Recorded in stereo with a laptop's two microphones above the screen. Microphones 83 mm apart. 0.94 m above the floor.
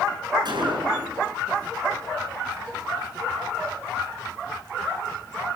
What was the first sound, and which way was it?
A gunshot, 60° right (ahead or behind).